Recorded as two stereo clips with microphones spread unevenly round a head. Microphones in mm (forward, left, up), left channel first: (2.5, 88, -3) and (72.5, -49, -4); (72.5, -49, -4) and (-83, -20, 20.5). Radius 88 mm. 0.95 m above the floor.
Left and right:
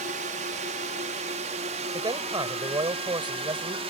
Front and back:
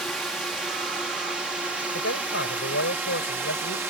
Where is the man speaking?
Straight ahead.